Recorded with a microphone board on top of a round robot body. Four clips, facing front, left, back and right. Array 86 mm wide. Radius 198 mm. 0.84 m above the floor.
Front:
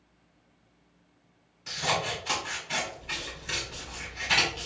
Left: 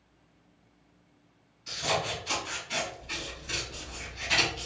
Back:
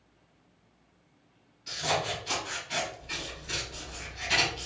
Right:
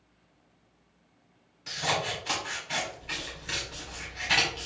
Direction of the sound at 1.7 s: 65° right.